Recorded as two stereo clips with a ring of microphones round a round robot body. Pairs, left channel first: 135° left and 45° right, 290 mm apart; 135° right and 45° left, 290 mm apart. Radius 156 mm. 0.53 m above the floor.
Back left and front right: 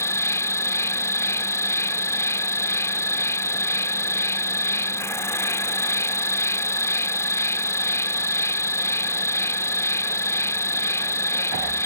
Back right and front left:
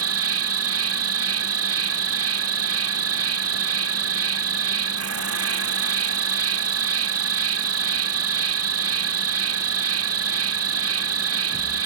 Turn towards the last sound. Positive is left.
turn(degrees=55)